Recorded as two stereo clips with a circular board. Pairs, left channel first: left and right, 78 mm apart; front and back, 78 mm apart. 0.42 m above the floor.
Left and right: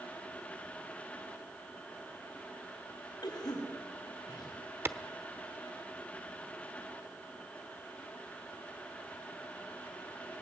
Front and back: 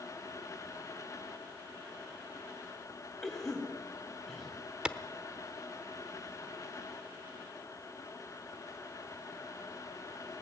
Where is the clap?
115° right, 0.8 m.